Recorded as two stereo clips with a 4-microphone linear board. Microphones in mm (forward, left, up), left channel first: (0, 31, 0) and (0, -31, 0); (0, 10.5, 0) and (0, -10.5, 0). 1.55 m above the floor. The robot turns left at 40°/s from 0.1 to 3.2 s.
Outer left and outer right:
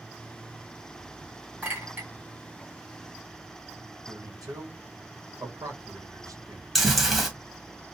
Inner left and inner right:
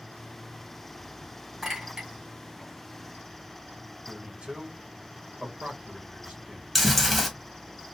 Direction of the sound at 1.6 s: 25° right (ahead or behind).